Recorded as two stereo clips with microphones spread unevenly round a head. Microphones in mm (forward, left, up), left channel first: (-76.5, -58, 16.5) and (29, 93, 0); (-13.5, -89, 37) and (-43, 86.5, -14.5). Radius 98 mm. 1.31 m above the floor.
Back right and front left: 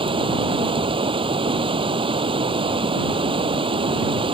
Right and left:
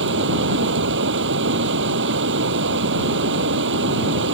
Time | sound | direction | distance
0.0 | running water | 120° left | ?